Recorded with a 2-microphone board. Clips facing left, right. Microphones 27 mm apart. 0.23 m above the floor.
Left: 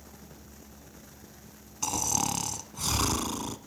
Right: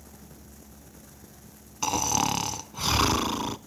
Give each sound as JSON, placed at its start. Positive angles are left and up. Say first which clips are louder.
{"t": 1.8, "sound": "snoring", "louder": "right 4 dB", "side_deg": -30, "distance_m": 0.6}